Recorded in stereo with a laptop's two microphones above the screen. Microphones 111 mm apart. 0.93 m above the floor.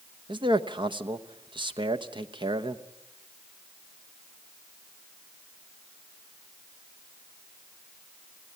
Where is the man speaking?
45° right (ahead or behind), 1.0 m.